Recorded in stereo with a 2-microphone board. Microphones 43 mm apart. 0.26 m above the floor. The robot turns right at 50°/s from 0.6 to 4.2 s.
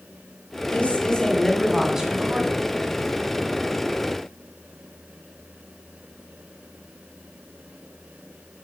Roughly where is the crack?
No crack in this recording.